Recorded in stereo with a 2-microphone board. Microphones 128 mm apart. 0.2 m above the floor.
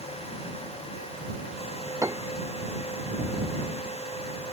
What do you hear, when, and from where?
2.0 s a piano: 25° right (ahead or behind)